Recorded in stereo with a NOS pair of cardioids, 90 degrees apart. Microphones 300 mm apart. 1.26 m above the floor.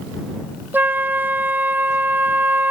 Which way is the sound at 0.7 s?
5° right.